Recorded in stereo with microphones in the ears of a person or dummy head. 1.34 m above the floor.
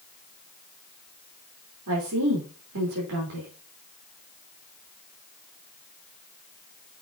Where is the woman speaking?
80° right, 3.5 m.